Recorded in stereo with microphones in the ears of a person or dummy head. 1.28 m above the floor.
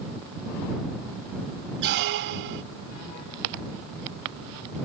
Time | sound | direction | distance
1.8 | a squeak | 60° right (ahead or behind) | ?